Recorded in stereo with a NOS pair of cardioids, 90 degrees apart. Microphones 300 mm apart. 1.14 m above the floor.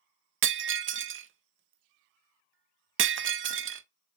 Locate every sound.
0.4 s breaking glass: 45° right, 0.5 m